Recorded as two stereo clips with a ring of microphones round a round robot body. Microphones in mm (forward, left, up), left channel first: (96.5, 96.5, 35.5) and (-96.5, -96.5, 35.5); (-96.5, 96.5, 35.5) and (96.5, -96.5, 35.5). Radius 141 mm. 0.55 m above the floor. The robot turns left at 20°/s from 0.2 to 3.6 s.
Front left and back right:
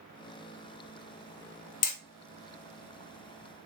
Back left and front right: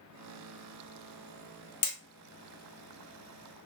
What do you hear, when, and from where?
1.8 s hammering: 80° left, 0.8 m